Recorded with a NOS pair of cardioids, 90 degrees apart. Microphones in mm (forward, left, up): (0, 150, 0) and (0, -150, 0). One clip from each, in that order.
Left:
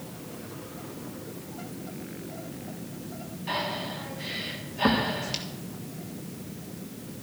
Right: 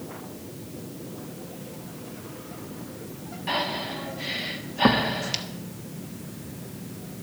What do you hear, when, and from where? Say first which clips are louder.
3.5 s breathing: right 3 dB; 25° right, 1.5 m